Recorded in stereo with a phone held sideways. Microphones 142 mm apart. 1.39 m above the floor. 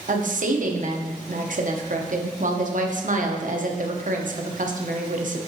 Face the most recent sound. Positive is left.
turn(degrees=-65)  # may be behind; listen again after turning